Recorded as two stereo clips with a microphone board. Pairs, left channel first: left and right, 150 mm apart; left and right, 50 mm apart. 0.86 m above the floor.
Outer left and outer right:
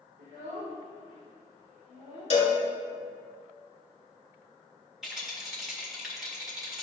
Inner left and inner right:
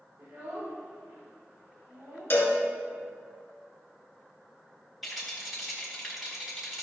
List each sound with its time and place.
0.2 s a child speaking: 75° right (ahead or behind), 1.7 m; by 2.4 s 40° right (ahead or behind), 1.7 m
2.3 s a cowbell: 50° left (ahead or behind), 1.8 m
5.0 s a rattle: 5° right (ahead or behind), 2 m